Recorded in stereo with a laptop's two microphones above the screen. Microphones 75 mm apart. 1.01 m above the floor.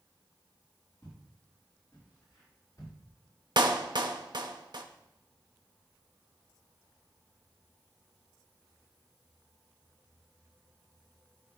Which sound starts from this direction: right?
A clap, at 3.6 s.